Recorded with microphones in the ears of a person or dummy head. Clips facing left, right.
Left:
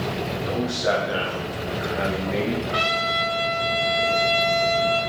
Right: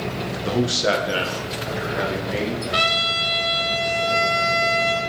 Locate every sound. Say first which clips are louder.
0.5 s a man speaking: right 4 dB; 60° right (ahead or behind), 0.7 m; by 2.6 s 5° right (ahead or behind), 1.6 m
2.7 s a trumpet: even; 25° right (ahead or behind), 0.9 m